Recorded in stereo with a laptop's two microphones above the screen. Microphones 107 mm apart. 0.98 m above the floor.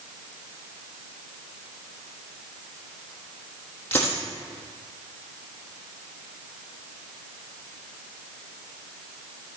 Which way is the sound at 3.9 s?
15° left (ahead or behind).